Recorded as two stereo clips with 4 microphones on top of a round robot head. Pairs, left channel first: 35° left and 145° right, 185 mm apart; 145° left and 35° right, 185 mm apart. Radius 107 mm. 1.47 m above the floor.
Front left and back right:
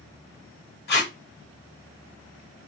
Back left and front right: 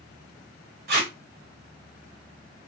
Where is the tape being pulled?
Straight ahead, 1.1 m.